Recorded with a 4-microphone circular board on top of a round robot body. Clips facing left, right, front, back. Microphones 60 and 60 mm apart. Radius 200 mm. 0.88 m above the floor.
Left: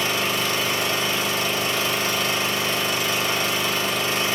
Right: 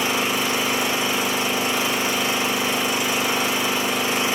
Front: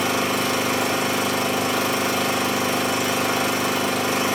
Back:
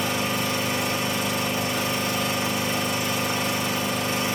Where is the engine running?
15° right, 1.1 m.